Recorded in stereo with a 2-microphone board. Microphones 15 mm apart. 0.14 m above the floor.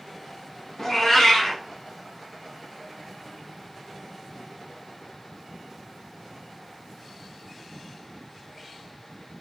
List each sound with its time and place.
0.8 s a cat meowing: 25° left (ahead or behind), 0.8 m